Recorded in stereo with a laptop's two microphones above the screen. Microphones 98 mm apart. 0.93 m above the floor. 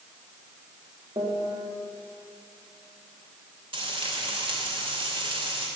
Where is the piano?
55° right (ahead or behind), 2 m.